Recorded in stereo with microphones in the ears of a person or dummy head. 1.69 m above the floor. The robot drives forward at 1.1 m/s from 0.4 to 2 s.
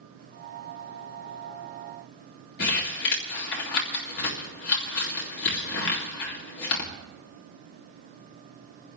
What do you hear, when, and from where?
2.6 s crumpling: 60° left (ahead or behind), 2 m